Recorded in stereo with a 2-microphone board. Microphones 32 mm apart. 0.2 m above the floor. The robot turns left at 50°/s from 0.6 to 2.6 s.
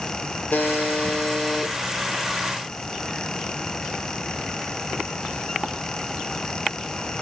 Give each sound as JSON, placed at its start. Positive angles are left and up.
{"t": 0.5, "sound": "a buzzer", "azimuth_deg": 65, "distance_m": 1.9}